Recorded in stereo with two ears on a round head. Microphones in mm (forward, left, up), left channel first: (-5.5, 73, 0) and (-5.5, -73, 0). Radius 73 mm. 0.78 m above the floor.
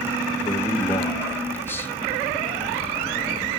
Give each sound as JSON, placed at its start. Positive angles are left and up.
{"t": 0.5, "sound": "a man speaking", "side_deg": 15, "distance_m": 1.3}